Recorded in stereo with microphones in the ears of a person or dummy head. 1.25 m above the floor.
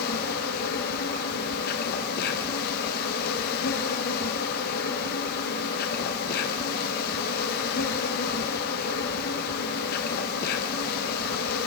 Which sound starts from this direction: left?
An insect, at 0.0 s.